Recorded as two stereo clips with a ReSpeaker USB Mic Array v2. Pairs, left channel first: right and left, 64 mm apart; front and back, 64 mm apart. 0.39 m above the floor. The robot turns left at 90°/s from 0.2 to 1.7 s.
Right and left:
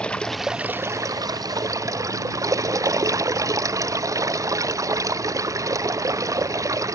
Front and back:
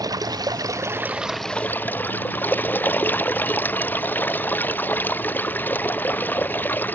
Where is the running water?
165° right; by 7.0 s 60° left.